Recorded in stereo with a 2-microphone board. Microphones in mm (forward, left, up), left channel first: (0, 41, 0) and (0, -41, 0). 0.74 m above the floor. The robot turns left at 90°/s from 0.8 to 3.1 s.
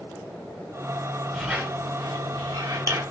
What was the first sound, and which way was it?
A squeak, 5° right (ahead or behind).